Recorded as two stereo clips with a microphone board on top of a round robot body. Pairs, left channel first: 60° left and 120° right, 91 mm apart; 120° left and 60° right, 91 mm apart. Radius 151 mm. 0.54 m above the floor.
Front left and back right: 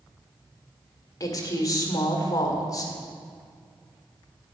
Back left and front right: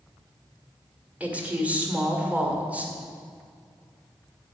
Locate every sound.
1.2 s a woman speaking: 15° left, 1.9 m